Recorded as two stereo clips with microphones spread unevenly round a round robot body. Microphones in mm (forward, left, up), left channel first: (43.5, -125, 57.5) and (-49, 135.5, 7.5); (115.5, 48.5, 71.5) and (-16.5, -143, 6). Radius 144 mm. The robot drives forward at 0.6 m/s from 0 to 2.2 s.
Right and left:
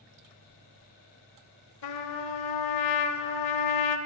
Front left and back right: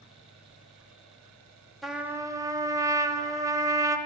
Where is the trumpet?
40° right, 0.7 m; by 4.0 s 55° right, 0.6 m.